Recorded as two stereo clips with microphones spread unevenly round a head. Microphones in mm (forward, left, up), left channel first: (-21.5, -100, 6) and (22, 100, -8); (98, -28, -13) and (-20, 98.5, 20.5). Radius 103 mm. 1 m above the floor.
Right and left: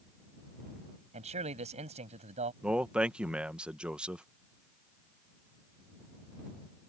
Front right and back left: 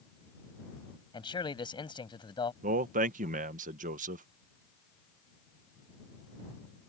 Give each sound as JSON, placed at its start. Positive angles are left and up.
{"t": 1.1, "sound": "a man speaking", "azimuth_deg": 20}
{"t": 2.6, "sound": "a man speaking", "azimuth_deg": 155}